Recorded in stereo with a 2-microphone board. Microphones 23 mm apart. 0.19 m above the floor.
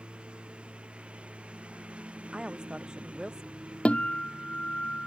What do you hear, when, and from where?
0.0 s a lawn mower: 75° right (ahead or behind); by 5.1 s 70° right (ahead or behind)
2.3 s a woman speaking: 40° right (ahead or behind)
3.9 s a guitar: 80° left